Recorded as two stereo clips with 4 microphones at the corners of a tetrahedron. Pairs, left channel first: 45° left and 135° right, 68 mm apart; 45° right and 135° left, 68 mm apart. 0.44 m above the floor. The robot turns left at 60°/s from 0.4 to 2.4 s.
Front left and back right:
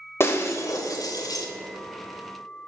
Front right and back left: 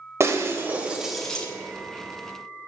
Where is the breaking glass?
90° left, 1.1 m; by 1.5 s 25° left, 1.1 m.